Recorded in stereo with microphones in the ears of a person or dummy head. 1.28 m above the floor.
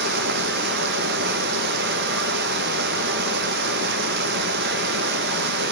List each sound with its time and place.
0.0 s running water: 65° right (ahead or behind), 0.8 m